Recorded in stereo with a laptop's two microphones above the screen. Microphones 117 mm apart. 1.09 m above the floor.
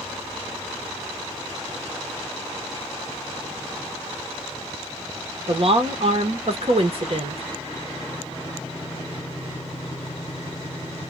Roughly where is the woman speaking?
Right.